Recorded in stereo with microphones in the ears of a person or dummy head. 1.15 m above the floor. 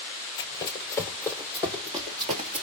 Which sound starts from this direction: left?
Running footsteps, at 0.4 s.